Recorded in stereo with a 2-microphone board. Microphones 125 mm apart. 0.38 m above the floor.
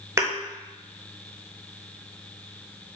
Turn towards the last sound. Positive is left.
turn(degrees=-20)  # may be behind; listen again after turning